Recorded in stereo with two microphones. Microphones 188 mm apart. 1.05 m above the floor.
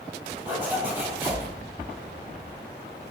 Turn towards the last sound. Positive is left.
turn(degrees=-10)  # may be behind; listen again after turning